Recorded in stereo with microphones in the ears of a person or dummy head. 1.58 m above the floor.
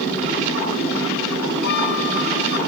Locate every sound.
1.6 s a flute: 60° left (ahead or behind)